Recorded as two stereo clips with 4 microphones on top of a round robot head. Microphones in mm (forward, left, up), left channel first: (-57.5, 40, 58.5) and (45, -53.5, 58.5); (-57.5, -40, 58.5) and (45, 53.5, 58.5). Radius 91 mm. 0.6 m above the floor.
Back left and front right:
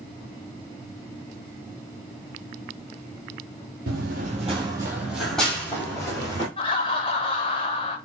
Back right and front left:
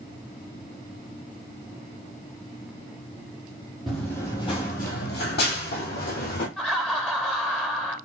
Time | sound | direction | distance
3.9 | running footsteps | 45° right | 1.0 m
6.6 | laughter | 140° left | 0.7 m